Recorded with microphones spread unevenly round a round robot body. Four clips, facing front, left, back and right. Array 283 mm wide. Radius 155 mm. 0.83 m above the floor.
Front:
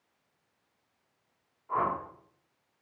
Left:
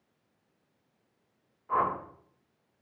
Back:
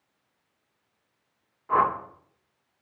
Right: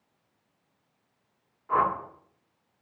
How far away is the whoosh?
About 3 m.